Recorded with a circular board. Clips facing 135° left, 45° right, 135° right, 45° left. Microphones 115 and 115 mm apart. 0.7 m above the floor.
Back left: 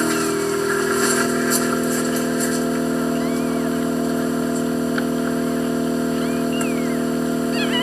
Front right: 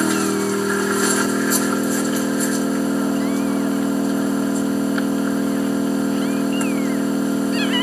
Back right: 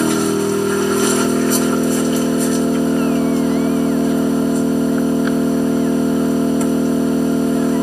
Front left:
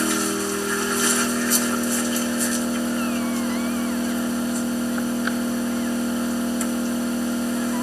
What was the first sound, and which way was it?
An engine running, 130° right.